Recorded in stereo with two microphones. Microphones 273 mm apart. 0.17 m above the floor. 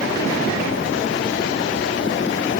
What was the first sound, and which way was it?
Only background noise.